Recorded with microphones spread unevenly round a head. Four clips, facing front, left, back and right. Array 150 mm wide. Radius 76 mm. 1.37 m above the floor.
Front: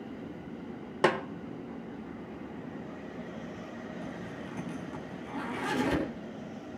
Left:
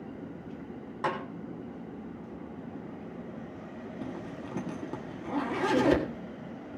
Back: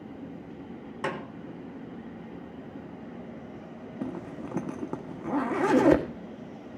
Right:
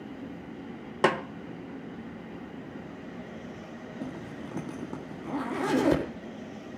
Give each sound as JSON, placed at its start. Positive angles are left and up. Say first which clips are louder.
{"t": 1.0, "sound": "a snare drum", "louder": "right 7 dB, front 7 dB", "azimuth_deg": -60, "distance_m": 1.5}
{"t": 4.0, "sound": "a zipper", "louder": "right 1 dB, back 4 dB", "azimuth_deg": -175, "distance_m": 1.7}